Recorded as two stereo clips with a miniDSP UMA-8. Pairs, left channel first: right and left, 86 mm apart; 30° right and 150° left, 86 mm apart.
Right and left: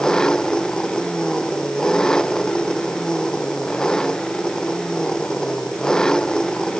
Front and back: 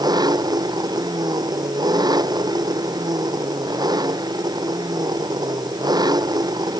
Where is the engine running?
175° right.